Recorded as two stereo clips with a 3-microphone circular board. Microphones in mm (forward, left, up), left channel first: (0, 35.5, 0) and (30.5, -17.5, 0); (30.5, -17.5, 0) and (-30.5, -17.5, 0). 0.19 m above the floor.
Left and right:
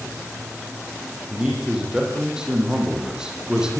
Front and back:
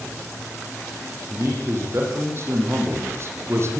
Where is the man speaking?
140° right, 7.5 m.